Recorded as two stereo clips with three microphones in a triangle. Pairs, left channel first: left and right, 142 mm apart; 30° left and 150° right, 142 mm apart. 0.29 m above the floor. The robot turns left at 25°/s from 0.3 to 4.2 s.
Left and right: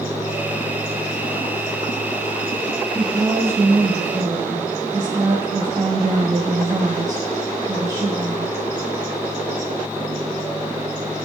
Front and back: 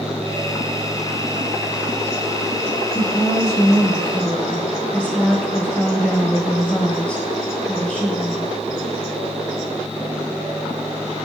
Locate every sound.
3.0 s a woman speaking: 15° right, 1.8 m; by 8.6 s 45° right, 1.8 m